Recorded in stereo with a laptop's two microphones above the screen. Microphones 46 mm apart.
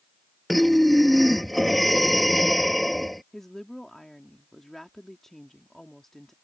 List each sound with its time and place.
0.5 s breathing: centre (ahead or behind)
3.3 s a woman speaking: 10° left (ahead or behind)